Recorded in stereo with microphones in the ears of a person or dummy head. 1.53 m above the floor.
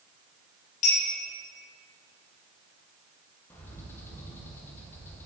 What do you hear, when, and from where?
0.8 s a clink: 45° left (ahead or behind), 1.9 m
3.5 s a bird: 10° left (ahead or behind), 0.9 m